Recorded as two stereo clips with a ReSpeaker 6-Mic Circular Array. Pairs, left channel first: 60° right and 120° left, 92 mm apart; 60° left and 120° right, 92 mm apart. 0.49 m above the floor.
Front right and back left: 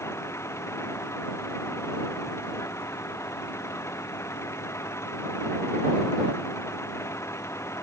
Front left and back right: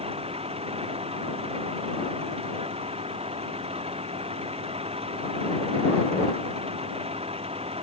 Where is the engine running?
120° right.